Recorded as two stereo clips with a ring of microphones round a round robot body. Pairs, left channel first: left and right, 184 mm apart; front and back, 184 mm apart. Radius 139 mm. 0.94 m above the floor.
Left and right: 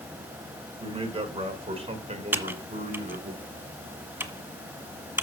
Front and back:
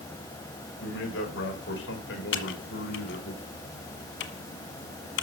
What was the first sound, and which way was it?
A man speaking, 30° right.